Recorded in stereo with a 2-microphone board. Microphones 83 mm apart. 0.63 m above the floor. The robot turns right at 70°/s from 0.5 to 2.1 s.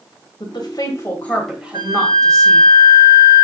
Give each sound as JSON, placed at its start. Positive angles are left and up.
{"t": 0.4, "sound": "a woman speaking", "side_deg": 65, "distance_m": 2.5}
{"t": 1.7, "sound": "a flute", "side_deg": -80, "distance_m": 3.0}